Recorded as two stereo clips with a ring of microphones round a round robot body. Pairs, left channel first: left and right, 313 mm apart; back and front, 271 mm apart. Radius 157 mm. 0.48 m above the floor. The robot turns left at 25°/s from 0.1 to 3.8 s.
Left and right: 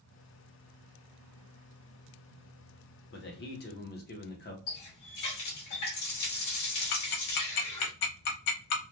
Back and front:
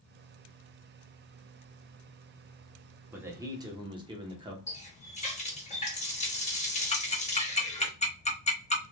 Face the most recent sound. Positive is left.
turn(degrees=115)